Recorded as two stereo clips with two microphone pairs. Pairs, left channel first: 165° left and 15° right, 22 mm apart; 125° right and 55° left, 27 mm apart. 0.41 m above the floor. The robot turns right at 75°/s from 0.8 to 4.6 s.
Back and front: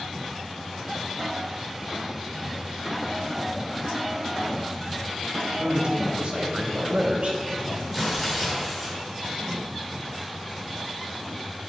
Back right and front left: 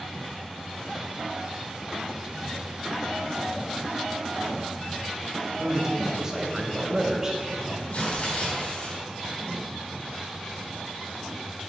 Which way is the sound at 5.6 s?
10° right.